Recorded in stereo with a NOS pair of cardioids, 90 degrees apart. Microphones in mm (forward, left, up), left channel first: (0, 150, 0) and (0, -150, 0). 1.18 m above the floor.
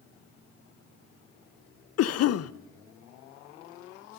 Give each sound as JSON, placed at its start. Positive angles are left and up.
{"t": 2.0, "sound": "a cough", "azimuth_deg": 55, "distance_m": 0.6}